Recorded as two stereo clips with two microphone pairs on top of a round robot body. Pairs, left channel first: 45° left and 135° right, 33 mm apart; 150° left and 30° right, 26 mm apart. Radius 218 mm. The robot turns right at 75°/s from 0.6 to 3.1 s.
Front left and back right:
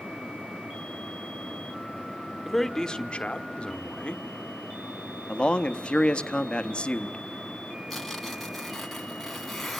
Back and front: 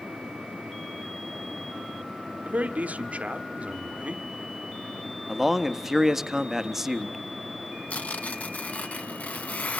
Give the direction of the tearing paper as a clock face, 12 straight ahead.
8 o'clock.